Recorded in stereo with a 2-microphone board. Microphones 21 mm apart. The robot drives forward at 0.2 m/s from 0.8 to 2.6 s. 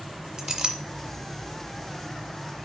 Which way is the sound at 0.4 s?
25° right (ahead or behind).